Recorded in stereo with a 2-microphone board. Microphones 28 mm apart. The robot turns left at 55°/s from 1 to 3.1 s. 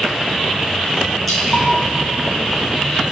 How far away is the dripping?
About 1.9 m.